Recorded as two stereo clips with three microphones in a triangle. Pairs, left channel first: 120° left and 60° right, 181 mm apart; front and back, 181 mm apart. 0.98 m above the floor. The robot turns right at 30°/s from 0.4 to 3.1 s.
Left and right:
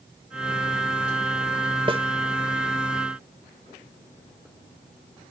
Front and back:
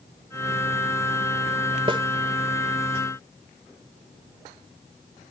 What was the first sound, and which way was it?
A snare drum, 120° right.